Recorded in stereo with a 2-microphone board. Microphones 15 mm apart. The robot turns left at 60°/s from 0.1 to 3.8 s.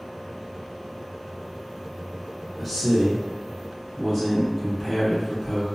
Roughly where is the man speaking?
Centre.